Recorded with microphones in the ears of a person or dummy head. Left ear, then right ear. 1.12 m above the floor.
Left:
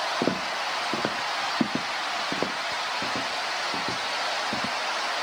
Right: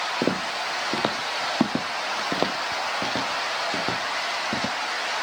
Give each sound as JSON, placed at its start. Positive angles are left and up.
{"t": 0.2, "sound": "footsteps", "side_deg": -10}